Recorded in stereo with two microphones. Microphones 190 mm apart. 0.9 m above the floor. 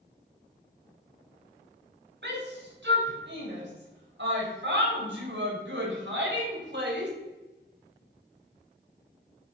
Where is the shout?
70° right (ahead or behind), 5 m; by 7.1 s 65° right (ahead or behind), 3.5 m.